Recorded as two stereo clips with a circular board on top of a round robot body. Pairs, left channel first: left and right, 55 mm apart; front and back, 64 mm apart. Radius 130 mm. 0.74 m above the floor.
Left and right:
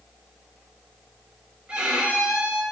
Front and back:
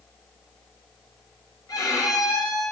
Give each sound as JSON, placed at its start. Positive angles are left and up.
{"t": 1.7, "sound": "a violin", "azimuth_deg": -20, "distance_m": 2.0}